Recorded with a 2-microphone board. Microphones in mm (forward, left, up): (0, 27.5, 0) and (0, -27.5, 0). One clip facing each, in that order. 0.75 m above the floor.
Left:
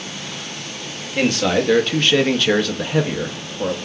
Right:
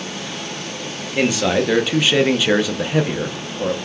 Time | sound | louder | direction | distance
1.2 | a man speaking | even | 5° right (ahead or behind) | 0.9 m